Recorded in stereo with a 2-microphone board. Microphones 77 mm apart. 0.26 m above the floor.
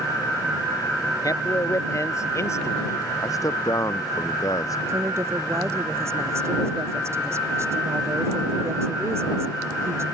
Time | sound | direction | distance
1.2 | a man speaking | 50° left (ahead or behind) | ?
3.2 | a man speaking | 50° left (ahead or behind) | ?
4.9 | a woman speaking | 35° right (ahead or behind) | ?